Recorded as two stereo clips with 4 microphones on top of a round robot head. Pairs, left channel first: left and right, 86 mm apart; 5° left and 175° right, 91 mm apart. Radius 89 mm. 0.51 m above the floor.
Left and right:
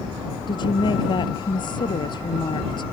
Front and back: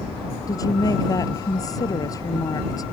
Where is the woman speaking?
55° left.